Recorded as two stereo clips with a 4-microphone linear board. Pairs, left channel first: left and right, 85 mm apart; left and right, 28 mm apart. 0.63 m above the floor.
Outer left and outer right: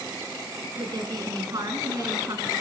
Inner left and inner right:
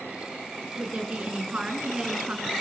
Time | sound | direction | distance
0.8 | a woman speaking | 55° right (ahead or behind) | 6.5 m